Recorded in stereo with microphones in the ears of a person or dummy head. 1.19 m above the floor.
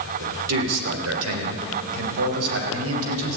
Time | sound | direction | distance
0.2 | a man speaking | 80° right | 3 m